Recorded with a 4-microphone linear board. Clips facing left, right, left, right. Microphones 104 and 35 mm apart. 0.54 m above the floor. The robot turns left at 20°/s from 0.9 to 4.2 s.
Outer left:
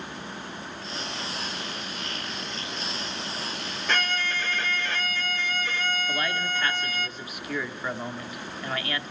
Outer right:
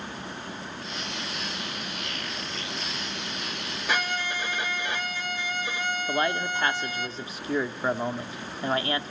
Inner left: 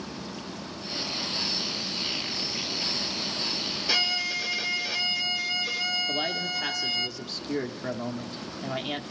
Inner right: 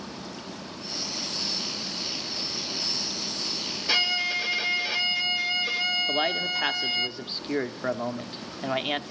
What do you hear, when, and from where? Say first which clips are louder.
3.9 s a violin: even, inner right 3 dB; 10° right (ahead or behind), 0.6 m; by 7.1 s 15° right (ahead or behind), 0.6 m
6.1 s a man speaking: outer right 3 dB, inner right 3 dB; 30° right (ahead or behind), 0.8 m